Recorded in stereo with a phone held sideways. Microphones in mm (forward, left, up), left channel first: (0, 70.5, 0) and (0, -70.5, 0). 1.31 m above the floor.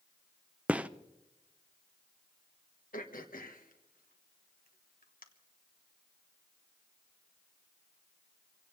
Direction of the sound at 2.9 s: 85° left.